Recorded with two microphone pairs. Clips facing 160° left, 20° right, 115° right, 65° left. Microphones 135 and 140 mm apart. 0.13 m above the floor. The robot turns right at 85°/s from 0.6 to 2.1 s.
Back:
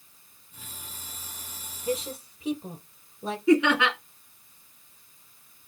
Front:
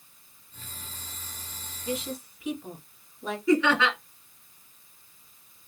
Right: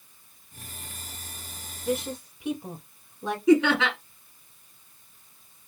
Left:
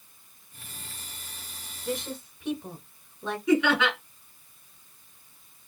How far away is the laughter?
About 2.0 m.